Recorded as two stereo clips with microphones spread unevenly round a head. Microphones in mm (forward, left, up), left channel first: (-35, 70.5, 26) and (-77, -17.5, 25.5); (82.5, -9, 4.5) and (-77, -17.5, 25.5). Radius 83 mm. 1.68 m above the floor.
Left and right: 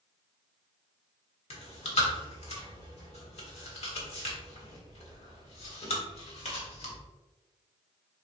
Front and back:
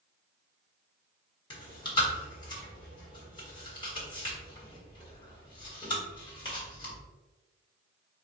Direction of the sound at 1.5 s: 65° left.